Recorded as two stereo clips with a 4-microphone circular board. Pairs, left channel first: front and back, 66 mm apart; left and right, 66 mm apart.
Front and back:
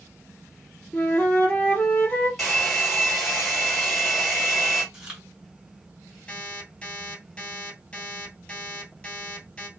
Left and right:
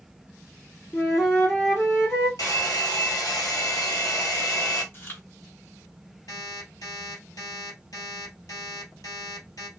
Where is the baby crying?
No baby crying in this recording.